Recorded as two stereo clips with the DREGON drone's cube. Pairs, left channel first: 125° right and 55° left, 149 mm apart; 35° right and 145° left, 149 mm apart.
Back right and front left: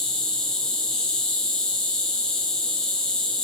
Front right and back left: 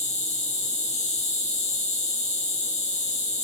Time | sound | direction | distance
0.0 | an insect | 40° right | 0.9 m